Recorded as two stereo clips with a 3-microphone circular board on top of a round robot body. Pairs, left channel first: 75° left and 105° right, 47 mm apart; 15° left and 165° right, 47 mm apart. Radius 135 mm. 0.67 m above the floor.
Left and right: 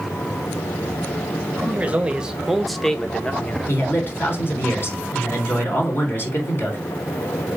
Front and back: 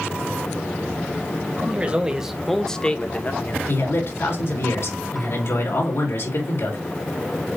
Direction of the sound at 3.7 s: 40° left.